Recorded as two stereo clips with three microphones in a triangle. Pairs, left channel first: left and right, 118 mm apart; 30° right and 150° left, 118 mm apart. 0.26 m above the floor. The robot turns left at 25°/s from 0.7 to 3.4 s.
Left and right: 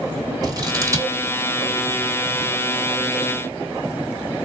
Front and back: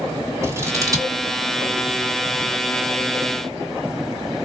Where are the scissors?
145° right, 1.4 m; by 1.1 s 155° right, 1.4 m.